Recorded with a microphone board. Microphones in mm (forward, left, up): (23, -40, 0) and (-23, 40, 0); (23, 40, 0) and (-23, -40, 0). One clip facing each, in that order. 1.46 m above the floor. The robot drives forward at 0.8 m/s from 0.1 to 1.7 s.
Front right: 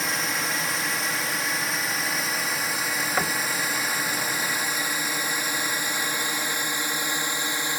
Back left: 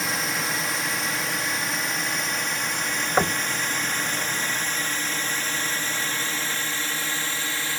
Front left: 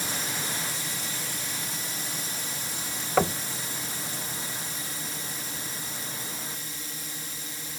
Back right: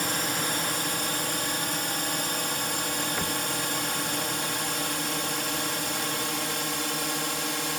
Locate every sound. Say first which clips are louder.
0.0 s a drone: even, back right 5 dB; 150° right; by 7.8 s 130° right
3.2 s knocking: back left 5 dB, front left 6 dB; 55° left